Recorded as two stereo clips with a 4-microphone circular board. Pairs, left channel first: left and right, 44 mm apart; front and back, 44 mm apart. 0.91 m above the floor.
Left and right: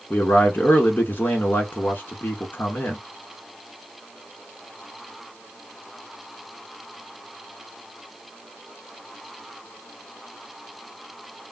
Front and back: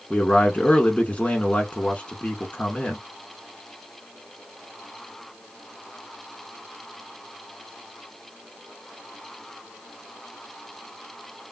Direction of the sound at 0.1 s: 70° left.